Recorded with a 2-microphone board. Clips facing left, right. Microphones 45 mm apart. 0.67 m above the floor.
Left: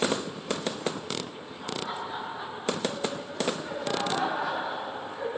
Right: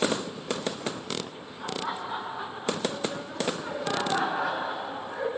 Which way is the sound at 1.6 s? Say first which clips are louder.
Right 2 dB; 40° right (ahead or behind).